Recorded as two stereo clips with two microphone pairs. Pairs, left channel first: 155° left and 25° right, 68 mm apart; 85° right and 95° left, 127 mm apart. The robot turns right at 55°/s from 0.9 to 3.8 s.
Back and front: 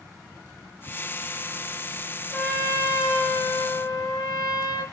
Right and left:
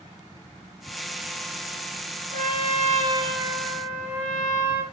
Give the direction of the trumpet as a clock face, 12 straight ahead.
9 o'clock.